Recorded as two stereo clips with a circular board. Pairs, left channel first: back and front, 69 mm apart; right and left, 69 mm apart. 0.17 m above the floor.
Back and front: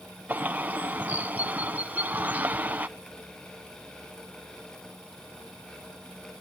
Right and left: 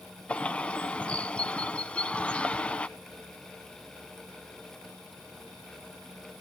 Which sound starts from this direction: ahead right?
A bird, at 0.3 s.